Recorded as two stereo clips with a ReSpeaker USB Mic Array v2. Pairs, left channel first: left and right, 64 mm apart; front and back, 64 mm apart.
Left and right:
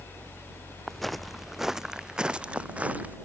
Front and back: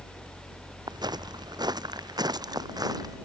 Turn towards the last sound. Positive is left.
turn(degrees=-160)